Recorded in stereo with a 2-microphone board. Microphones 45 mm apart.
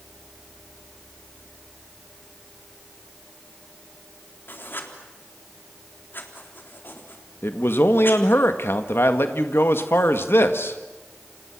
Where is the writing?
55° left (ahead or behind), 3.5 m.